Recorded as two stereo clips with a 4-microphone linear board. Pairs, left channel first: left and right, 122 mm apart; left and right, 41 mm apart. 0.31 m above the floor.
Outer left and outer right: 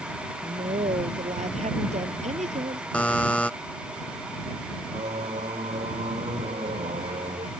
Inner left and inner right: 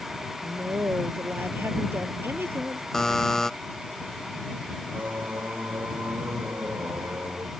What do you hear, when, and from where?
0.4 s a woman speaking: 80° right
2.9 s a buzzer: 10° left (ahead or behind)
4.9 s singing: 65° right (ahead or behind)